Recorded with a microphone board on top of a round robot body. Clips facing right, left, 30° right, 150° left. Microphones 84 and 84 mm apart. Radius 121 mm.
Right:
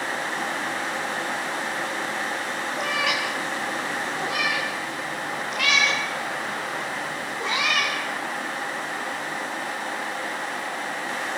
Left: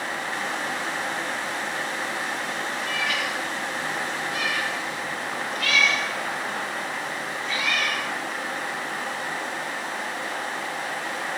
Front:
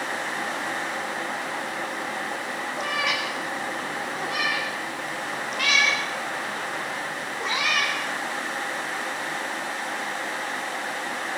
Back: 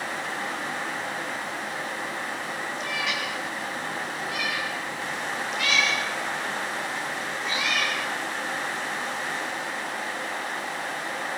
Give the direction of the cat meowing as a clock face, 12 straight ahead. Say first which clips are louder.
Right 4 dB, front 5 dB; 2 o'clock.